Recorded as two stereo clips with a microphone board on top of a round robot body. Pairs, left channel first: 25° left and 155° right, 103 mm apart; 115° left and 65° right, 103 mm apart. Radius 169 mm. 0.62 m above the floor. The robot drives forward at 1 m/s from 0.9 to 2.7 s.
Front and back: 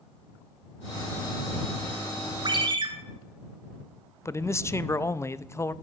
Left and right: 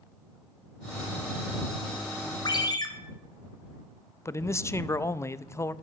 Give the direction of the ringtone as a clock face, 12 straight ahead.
7 o'clock.